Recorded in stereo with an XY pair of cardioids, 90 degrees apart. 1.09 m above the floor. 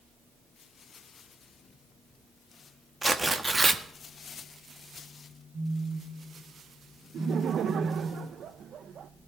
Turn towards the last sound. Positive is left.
turn(degrees=-65)